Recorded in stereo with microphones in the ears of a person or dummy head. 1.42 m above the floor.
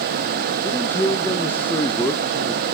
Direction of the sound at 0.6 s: 10° left (ahead or behind).